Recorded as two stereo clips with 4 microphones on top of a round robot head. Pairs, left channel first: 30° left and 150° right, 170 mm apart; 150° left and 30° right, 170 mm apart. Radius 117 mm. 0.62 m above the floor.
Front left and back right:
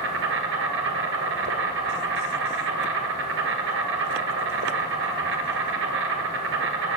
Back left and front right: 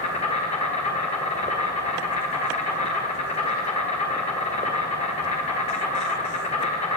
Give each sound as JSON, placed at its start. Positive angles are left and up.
{"t": 0.0, "sound": "an insect", "azimuth_deg": -160, "distance_m": 1.3}